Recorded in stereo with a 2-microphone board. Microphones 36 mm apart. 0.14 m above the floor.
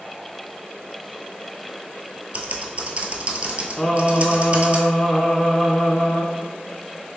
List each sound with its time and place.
2.3 s typing on a keyboard: 40° right (ahead or behind), 0.6 m
3.8 s singing: 10° left (ahead or behind), 0.6 m